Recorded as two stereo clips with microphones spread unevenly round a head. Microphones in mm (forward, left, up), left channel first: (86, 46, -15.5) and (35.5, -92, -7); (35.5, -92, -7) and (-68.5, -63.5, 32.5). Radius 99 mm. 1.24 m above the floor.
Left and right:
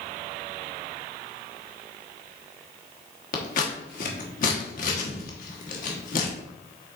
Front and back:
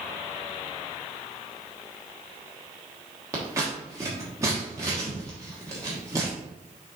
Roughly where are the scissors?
Left.